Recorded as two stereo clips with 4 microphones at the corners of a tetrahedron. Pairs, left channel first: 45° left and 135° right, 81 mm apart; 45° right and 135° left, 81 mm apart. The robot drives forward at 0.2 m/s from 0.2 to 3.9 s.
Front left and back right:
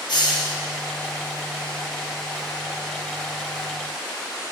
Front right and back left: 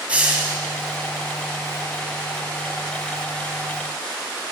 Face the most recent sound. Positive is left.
turn(degrees=95)